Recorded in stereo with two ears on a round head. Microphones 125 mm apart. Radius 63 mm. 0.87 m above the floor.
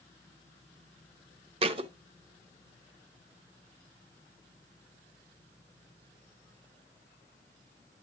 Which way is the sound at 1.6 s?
40° right (ahead or behind).